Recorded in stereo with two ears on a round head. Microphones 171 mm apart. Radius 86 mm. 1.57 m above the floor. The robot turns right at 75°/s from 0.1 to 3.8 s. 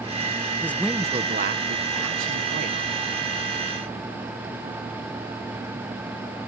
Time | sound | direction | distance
0.6 | a man speaking | 165° left | ?